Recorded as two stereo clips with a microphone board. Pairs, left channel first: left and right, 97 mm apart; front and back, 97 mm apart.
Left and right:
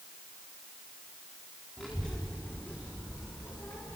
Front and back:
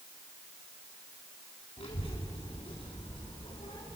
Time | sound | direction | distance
1.8 | a child speaking | 5° left | 2.0 m